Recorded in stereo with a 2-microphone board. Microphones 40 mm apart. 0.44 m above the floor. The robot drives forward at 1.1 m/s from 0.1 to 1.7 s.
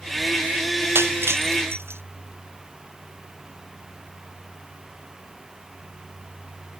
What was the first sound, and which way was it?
Breaking glass, 85° right.